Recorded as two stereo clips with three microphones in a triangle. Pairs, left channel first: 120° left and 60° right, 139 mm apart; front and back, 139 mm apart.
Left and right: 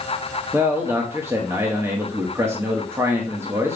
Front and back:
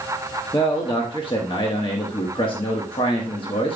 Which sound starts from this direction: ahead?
A man speaking, at 0.5 s.